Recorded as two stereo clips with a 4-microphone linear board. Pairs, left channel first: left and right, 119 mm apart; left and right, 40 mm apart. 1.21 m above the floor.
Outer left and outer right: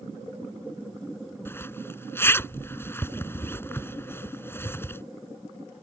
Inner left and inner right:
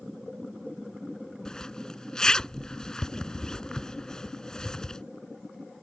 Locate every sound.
1.4 s a zipper: 20° left (ahead or behind)